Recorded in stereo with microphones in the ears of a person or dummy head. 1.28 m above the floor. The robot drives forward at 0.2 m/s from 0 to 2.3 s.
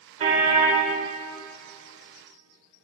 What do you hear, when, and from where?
0.2 s a car horn: 35° right (ahead or behind), 2.5 m